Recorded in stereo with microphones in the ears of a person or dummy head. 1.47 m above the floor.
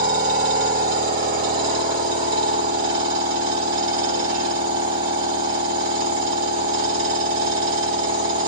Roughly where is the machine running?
Right.